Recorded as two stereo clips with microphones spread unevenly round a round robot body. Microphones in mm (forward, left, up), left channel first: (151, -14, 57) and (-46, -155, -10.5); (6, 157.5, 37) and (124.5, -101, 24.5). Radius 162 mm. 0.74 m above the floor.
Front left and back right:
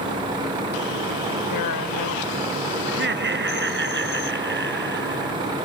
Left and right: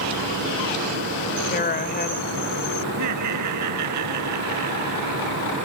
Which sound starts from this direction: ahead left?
A woman speaking, at 1.5 s.